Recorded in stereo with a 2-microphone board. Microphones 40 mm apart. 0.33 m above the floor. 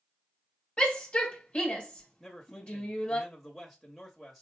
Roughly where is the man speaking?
Centre.